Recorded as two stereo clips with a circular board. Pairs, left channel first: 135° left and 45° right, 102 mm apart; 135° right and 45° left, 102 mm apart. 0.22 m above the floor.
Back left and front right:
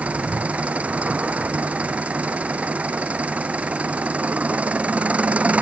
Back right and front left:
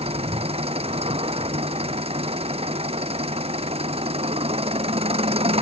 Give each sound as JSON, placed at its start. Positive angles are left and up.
{"t": 0.0, "sound": "an engine running", "azimuth_deg": 30}